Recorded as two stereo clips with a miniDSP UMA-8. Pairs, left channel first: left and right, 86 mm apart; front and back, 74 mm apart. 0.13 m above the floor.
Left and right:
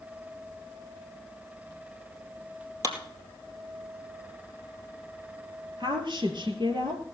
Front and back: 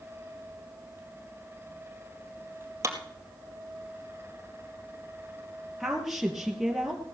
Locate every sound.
2.8 s a clap: 135° right, 2.5 m
5.8 s a woman speaking: 90° right, 2.5 m